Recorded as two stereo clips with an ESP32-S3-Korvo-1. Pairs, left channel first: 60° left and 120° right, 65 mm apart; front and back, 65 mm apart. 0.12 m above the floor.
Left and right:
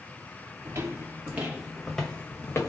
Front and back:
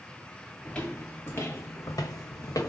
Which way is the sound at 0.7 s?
75° right.